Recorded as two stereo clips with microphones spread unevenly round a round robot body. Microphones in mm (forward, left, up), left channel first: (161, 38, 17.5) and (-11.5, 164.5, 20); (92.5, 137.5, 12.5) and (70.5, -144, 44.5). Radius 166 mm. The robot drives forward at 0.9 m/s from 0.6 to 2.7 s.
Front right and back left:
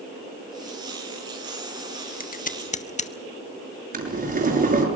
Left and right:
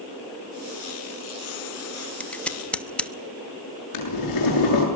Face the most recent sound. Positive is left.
turn(degrees=95)